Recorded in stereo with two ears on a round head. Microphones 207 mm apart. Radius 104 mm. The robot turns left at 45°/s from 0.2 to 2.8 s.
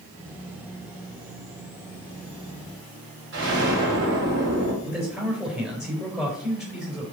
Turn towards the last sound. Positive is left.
turn(degrees=-5)  # may be behind; listen again after turning